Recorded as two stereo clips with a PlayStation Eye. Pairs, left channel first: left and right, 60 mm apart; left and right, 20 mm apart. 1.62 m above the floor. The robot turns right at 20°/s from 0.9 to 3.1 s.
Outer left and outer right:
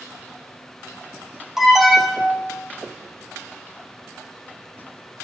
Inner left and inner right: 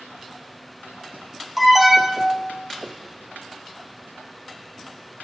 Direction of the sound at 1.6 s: 5° right (ahead or behind).